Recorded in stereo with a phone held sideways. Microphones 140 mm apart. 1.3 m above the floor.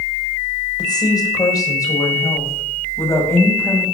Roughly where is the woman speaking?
Left.